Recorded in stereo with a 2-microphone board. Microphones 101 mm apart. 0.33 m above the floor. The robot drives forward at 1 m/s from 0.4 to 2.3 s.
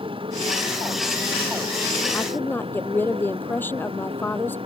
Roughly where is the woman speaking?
Centre.